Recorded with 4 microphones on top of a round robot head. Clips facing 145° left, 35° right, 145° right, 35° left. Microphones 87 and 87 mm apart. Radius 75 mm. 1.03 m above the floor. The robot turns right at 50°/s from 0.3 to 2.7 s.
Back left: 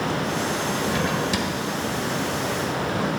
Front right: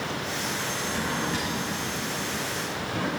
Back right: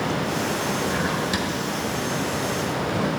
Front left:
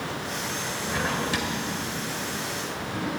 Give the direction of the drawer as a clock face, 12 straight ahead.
8 o'clock.